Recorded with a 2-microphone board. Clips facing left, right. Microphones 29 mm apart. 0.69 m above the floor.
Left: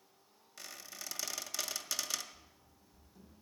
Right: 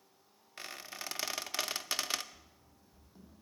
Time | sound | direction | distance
0.6 | a squeak | 35° right (ahead or behind) | 0.6 m
2.3 | running footsteps | 35° right (ahead or behind) | 1.7 m